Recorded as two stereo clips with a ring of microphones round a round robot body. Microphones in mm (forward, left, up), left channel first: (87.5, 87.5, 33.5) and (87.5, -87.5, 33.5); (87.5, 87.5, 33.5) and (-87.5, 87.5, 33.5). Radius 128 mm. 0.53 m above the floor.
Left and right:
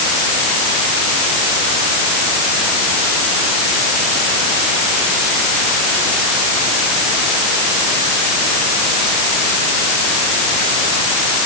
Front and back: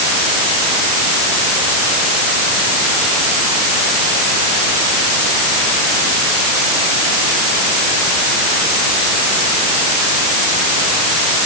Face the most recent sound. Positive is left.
No sound to turn to.